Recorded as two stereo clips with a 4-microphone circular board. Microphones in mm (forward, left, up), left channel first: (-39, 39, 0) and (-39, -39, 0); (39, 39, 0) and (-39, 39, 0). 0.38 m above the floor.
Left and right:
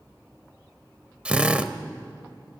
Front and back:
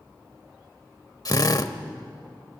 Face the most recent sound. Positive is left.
turn(degrees=-20)